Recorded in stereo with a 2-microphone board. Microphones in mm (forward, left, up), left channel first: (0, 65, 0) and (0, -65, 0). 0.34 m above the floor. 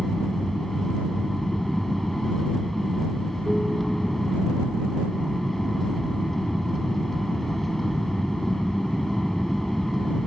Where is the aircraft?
Centre (ahead or behind).